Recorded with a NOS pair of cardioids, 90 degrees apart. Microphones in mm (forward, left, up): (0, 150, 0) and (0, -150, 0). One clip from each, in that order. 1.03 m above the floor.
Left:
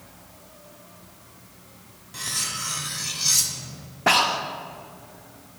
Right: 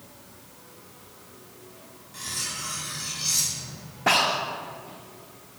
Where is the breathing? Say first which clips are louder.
Left 2 dB; 15° left, 0.7 m.